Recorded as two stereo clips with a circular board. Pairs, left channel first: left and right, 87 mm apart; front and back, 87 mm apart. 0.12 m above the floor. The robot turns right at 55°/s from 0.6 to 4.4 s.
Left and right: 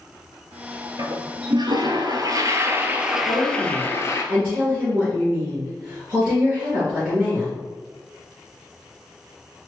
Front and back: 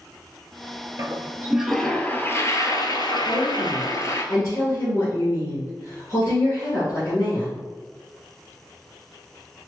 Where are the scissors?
I don't hear scissors.